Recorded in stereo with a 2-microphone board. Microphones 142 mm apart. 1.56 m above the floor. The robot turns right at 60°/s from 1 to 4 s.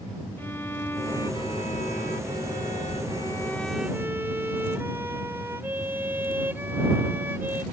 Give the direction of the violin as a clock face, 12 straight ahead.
12 o'clock.